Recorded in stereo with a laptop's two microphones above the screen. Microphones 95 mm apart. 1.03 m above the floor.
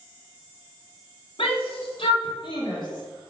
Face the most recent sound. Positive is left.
turn(degrees=40)  # may be behind; listen again after turning